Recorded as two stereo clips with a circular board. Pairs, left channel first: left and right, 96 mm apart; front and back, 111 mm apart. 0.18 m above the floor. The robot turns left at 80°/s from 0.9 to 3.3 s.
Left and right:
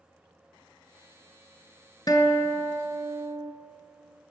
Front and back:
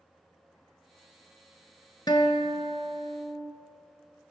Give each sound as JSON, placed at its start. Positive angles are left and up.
{"t": 2.1, "sound": "a guitar", "azimuth_deg": 50, "distance_m": 1.2}